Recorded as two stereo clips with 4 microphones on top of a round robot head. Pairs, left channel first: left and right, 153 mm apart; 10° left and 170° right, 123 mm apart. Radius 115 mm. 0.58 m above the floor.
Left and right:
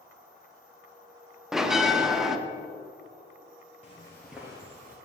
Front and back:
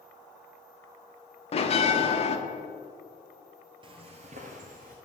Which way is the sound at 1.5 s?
5° right.